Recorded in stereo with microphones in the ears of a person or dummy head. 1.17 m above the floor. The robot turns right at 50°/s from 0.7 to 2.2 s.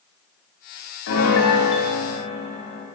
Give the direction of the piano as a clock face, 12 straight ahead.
9 o'clock.